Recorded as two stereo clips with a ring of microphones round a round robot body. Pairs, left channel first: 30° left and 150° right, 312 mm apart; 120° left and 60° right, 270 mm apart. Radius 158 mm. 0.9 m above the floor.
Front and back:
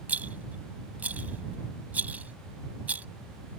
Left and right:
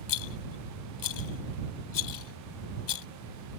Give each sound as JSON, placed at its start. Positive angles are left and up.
{"t": 0.1, "sound": "a rattle", "azimuth_deg": 125}